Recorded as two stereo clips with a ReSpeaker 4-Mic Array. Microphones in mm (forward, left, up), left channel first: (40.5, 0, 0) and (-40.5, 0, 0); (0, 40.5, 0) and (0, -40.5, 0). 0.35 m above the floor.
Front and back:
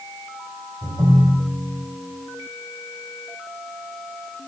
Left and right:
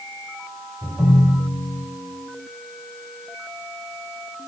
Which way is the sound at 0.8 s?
165° right.